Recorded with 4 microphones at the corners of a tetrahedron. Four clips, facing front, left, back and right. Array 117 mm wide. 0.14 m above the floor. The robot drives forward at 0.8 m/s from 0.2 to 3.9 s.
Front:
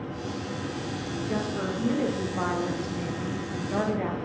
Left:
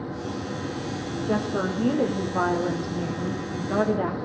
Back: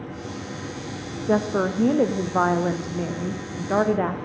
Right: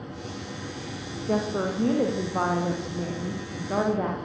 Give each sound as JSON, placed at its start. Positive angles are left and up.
{"t": 1.3, "sound": "a woman speaking", "azimuth_deg": 175, "distance_m": 7.0}